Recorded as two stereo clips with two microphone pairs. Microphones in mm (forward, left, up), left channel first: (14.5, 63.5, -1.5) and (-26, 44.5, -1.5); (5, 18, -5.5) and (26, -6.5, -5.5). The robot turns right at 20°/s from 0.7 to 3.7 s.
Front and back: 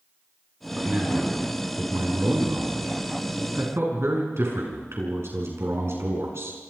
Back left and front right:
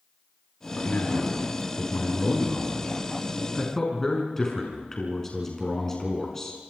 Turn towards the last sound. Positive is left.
turn(degrees=-150)